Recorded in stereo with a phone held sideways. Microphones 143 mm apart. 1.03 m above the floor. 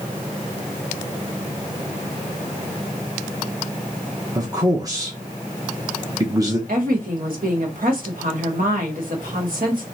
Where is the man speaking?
25° right (ahead or behind), 0.9 m.